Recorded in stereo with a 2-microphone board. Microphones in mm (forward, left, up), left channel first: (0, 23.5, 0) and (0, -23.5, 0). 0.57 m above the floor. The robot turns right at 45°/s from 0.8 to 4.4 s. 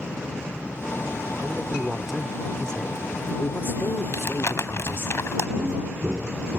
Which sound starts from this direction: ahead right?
A man speaking, at 1.4 s.